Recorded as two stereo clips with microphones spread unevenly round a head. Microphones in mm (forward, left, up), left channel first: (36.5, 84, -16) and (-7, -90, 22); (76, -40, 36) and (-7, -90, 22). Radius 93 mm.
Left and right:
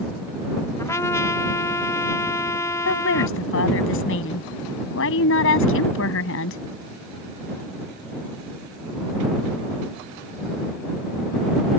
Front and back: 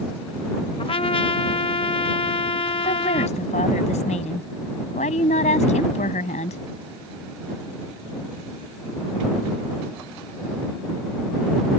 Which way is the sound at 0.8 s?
10° left.